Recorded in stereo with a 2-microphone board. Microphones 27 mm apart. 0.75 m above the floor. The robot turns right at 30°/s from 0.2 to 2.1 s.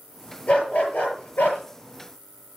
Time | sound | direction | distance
0.5 | a dog barking | 45° left | 6 m